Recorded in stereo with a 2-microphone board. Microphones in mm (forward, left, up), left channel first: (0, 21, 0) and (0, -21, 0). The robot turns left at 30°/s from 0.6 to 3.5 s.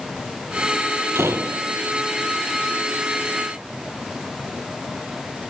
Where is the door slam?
75° right (ahead or behind); by 1.8 s 60° right (ahead or behind).